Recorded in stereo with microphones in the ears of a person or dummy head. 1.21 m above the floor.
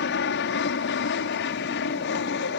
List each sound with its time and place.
0.0 s an aircraft: 55° left (ahead or behind)